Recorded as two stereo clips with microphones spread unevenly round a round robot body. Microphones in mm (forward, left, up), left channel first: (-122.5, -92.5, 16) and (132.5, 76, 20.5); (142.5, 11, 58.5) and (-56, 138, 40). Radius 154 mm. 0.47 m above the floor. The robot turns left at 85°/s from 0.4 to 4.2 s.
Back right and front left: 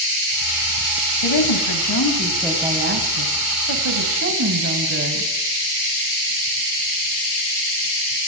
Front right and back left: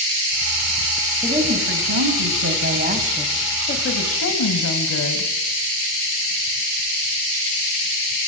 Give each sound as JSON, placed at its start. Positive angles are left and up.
{"t": 1.2, "sound": "a woman speaking", "azimuth_deg": -125, "distance_m": 3.0}